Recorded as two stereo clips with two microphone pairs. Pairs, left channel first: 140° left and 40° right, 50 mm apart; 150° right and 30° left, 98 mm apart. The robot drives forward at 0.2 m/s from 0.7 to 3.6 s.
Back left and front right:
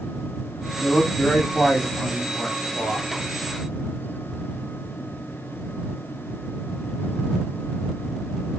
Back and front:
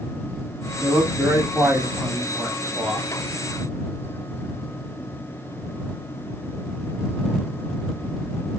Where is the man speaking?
75° left, 1.0 m; by 3.1 s 115° left, 1.0 m.